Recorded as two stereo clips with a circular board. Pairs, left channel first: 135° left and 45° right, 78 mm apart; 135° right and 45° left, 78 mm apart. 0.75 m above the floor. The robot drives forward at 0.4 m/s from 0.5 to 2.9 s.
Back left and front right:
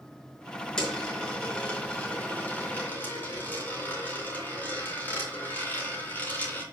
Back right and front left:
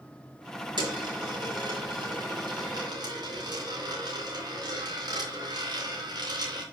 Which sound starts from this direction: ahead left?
A dropped coin, at 0.8 s.